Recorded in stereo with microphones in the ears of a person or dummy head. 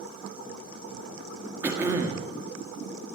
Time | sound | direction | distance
1.6 | throat clearing | 10° right (ahead or behind) | 1.7 m